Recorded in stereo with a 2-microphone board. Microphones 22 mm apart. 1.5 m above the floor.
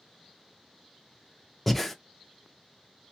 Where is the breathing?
5° left (ahead or behind), 0.5 m.